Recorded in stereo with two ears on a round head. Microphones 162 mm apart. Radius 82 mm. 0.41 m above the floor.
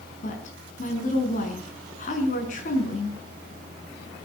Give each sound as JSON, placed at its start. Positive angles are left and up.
{"t": 0.2, "sound": "a woman speaking", "side_deg": 45, "distance_m": 5.5}